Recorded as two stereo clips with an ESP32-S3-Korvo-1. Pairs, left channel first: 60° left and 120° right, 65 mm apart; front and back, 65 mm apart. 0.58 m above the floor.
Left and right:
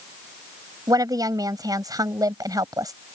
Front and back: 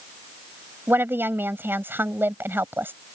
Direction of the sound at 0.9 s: 125° right.